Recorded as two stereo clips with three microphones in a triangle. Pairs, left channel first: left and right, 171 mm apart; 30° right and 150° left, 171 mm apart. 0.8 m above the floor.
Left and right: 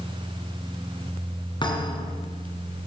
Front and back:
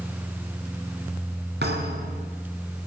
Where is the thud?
150° left, 2.5 m.